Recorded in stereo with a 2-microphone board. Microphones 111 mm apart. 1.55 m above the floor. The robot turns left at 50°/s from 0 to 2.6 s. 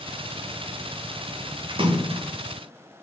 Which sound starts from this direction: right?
A splash, at 1.7 s.